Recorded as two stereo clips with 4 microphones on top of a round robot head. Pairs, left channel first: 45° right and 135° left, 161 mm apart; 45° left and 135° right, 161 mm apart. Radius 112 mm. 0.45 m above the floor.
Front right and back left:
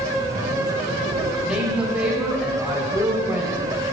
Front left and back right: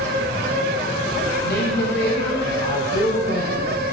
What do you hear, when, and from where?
1.4 s a woman speaking: 50° left, 2.5 m